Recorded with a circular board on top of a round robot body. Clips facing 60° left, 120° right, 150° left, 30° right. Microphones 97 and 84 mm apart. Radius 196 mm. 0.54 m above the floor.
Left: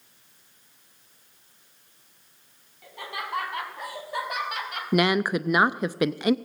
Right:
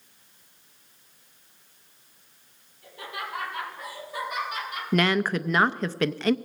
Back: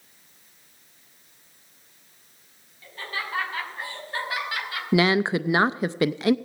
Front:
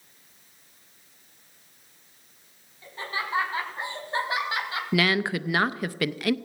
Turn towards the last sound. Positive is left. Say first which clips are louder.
# left 1 dB, back 4 dB
turn(degrees=120)